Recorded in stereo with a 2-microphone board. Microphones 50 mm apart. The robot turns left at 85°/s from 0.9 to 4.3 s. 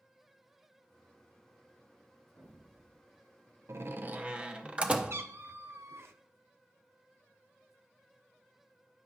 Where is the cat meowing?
55° right (ahead or behind), 0.6 m.